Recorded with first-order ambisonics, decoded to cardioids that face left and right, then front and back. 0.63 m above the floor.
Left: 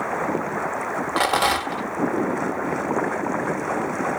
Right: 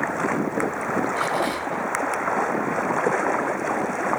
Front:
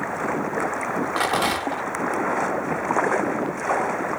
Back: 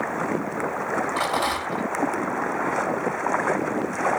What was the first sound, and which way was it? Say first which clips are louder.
A rattle: left 4 dB, front 5 dB; 65° left.